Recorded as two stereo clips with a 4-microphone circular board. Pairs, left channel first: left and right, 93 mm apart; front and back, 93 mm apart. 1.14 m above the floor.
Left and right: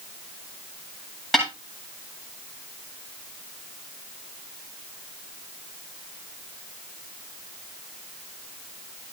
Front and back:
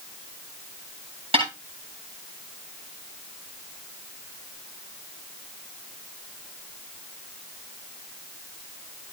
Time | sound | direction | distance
1.3 | a snare drum | straight behind | 7.5 m